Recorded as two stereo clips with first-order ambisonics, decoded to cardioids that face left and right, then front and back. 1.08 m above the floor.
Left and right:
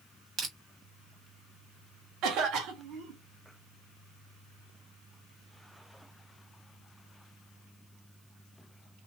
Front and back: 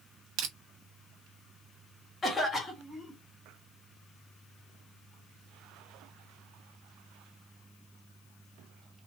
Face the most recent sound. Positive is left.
turn(degrees=-65)